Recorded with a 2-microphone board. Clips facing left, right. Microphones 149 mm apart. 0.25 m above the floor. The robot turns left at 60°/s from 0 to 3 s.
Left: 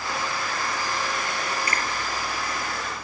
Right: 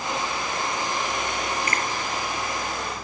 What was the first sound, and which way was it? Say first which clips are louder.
A finger snap: right 1 dB; 35° left (ahead or behind).